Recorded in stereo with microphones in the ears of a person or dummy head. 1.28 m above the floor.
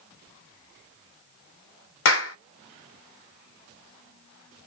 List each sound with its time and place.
2.0 s a clap: 60° left (ahead or behind), 0.8 m